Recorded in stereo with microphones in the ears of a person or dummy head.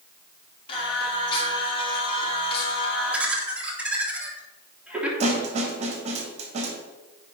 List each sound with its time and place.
0.7 s singing: 30° left (ahead or behind), 3 m
3.1 s laughter: 10° right (ahead or behind), 3 m
5.2 s a snare drum: 40° right (ahead or behind), 2 m